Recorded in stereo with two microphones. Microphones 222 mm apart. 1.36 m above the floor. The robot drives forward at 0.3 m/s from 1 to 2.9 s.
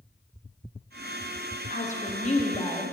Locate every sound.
1.7 s a woman speaking: 35° left (ahead or behind), 1.1 m; by 2.8 s 25° left (ahead or behind), 1.4 m